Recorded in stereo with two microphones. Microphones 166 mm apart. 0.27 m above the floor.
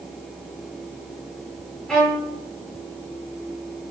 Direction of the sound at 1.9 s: 5° left (ahead or behind).